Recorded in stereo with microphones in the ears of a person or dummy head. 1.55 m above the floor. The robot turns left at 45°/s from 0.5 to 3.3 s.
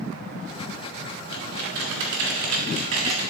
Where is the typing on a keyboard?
55° right, 2 m; by 3.2 s 140° right, 2 m.